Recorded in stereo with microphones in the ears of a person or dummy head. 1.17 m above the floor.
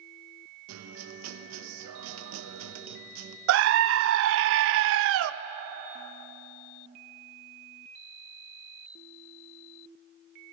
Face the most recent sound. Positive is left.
turn(degrees=-70)  # may be behind; listen again after turning